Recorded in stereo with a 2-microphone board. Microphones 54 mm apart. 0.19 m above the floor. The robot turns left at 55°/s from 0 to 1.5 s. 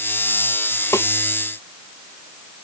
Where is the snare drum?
75° left (ahead or behind).